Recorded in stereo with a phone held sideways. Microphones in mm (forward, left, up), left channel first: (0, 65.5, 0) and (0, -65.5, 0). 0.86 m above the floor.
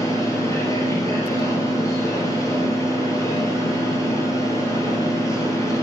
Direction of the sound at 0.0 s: 25° left (ahead or behind).